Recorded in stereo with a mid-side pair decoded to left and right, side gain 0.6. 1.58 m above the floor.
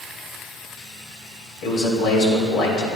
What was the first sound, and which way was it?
A man speaking, 60° left.